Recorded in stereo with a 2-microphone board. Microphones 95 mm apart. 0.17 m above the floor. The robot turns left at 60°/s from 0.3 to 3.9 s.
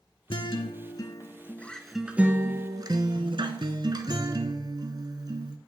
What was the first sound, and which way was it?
A guitar, 95° left.